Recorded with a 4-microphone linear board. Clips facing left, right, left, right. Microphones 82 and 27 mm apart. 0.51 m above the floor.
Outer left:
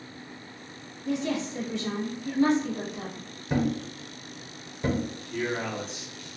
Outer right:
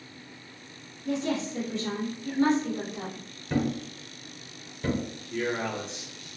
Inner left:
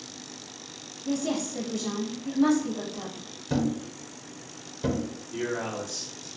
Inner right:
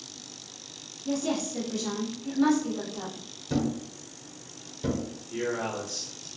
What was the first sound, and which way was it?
A woman speaking, 35° right (ahead or behind).